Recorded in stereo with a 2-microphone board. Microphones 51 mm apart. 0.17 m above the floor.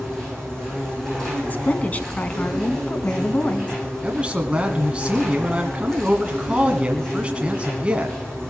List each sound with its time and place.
0.0 s an insect: 10° left (ahead or behind), 9.5 m
1.5 s a woman speaking: 35° left (ahead or behind), 1.2 m
4.0 s a man speaking: 20° right (ahead or behind), 1.4 m